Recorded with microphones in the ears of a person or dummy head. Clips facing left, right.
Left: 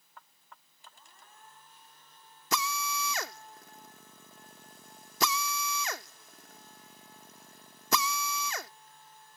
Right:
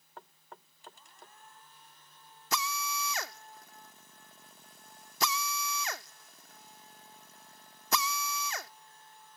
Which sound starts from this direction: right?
Knocking, at 0.2 s.